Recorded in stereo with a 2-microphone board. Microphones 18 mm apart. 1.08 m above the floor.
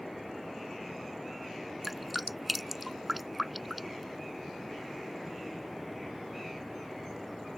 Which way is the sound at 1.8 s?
5° right (ahead or behind).